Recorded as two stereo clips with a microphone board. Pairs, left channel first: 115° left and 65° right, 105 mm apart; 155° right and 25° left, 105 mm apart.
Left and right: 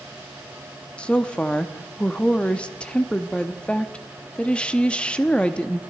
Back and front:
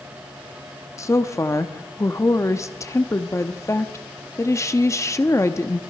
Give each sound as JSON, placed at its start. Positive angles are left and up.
{"t": 1.0, "sound": "a woman speaking", "azimuth_deg": 180, "distance_m": 0.6}